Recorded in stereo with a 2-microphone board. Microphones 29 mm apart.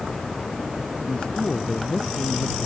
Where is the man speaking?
35° left (ahead or behind); by 2.7 s 40° left (ahead or behind).